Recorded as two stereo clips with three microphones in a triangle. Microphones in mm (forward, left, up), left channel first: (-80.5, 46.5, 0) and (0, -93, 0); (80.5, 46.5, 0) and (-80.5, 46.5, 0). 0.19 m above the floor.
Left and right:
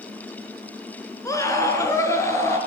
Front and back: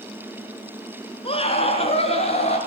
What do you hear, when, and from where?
1.2 s a scream: 50° left, 2.5 m; by 2.6 s 45° left, 3.5 m